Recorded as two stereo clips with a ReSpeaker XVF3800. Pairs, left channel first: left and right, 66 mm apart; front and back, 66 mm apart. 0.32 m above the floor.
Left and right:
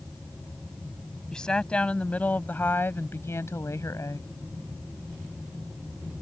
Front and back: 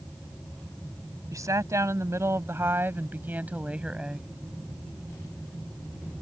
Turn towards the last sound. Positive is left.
turn(degrees=105)